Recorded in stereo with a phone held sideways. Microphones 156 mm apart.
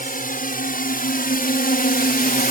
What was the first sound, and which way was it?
A drone, 60° left (ahead or behind).